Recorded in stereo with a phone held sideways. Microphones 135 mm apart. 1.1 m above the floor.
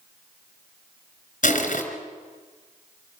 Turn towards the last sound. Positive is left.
turn(degrees=70)  # may be behind; listen again after turning